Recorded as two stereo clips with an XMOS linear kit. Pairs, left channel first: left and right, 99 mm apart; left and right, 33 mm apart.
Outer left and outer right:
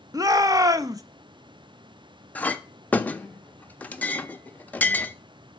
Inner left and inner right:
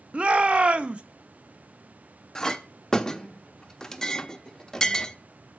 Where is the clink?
15° left (ahead or behind), 0.5 m.